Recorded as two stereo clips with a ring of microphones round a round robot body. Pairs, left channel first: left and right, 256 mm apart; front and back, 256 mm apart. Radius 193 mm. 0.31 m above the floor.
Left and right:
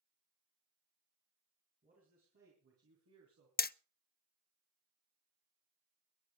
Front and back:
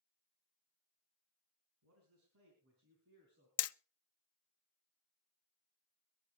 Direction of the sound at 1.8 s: 155° right.